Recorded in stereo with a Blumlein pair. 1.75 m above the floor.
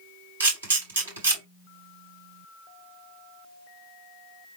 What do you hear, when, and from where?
0.4 s a camera shutter: 70° right, 3 m